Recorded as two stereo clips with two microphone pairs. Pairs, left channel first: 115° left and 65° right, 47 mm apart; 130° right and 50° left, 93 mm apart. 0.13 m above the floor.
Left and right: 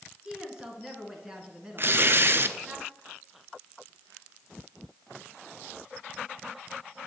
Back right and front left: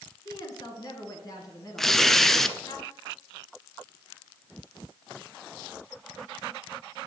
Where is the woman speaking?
135° right, 2 m.